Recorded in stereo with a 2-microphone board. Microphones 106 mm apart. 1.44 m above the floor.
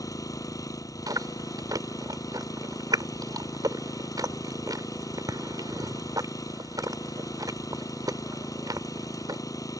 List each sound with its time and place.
0.0 s an engine running: 30° left (ahead or behind)
1.1 s chewing: 35° right (ahead or behind)